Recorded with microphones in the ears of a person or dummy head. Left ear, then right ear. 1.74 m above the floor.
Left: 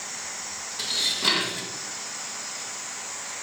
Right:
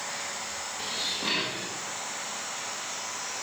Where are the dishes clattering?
35° left (ahead or behind), 1.5 m.